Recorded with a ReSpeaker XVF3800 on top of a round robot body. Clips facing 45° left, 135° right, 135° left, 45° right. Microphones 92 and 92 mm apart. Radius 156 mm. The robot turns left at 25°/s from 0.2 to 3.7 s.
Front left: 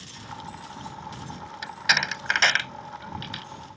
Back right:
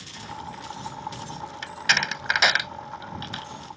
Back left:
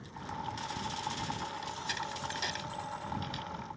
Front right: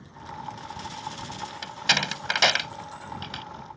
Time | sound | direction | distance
1.6 | a door slam | 35° right | ?